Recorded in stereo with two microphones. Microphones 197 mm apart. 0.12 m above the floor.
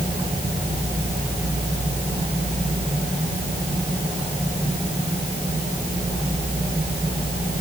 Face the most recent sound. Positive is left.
No sound to turn to.